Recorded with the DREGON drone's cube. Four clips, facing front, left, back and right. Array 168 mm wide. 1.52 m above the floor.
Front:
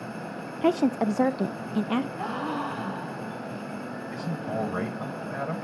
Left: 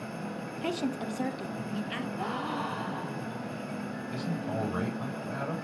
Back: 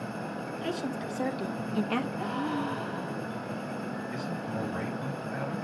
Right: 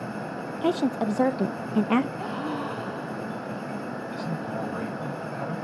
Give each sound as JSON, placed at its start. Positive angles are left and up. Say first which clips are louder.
{"t": 0.6, "sound": "a woman speaking", "louder": "right 8 dB, front 12 dB", "azimuth_deg": -20, "distance_m": 1.1}
{"t": 2.2, "sound": "a gasp", "louder": "right 2 dB, front 1 dB", "azimuth_deg": 25, "distance_m": 7.5}
{"t": 4.1, "sound": "a man speaking", "louder": "even, front 7 dB", "azimuth_deg": 25, "distance_m": 9.5}